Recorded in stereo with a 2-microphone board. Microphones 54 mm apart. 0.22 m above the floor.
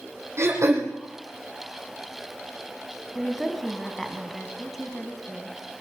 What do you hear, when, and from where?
0.4 s throat clearing: 60° right (ahead or behind), 4 m
3.1 s a woman speaking: centre (ahead or behind), 1.8 m